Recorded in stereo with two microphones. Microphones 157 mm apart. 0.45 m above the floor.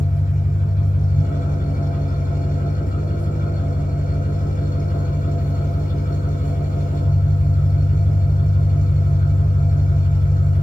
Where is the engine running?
70° left (ahead or behind), 5 m.